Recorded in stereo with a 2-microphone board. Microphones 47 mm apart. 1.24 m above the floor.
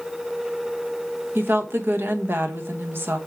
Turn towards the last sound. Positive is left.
turn(degrees=-55)  # may be behind; listen again after turning